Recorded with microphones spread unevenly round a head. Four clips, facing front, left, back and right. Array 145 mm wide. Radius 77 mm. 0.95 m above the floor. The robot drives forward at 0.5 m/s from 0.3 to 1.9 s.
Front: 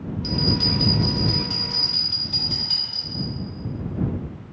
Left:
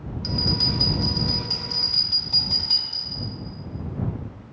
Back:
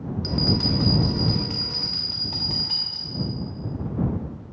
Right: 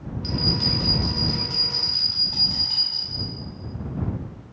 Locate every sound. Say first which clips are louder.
0.2 s a bell: right 1 dB, even; 150° left, 0.5 m; by 3.3 s 170° left, 1.3 m